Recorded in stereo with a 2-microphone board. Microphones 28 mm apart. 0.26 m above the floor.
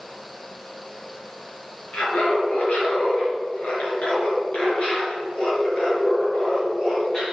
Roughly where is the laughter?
Left.